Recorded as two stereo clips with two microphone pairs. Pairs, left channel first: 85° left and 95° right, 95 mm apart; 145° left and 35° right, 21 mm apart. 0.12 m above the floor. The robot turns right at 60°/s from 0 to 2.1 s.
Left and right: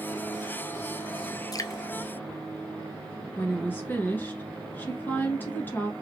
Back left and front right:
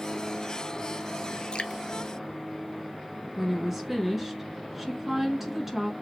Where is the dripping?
120° left, 0.6 m; by 1.8 s 135° left, 0.6 m.